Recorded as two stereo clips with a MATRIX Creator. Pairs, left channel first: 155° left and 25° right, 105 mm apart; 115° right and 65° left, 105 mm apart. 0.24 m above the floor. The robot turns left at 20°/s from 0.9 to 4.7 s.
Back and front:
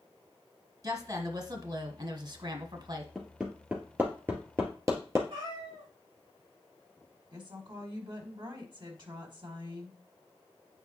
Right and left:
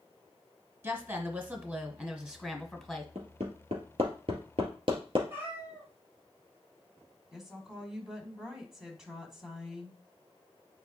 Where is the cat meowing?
Straight ahead, 4 m.